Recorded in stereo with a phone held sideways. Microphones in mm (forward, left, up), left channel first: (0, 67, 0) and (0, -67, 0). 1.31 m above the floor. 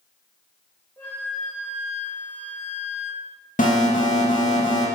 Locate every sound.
1.0 s a flute: 15° left (ahead or behind), 1.8 m
3.6 s an alarm: 75° left (ahead or behind), 1.5 m